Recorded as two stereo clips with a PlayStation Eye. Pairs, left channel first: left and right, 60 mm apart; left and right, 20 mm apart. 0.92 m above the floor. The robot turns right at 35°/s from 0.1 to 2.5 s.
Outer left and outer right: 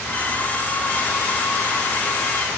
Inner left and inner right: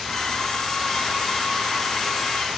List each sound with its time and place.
Only background noise.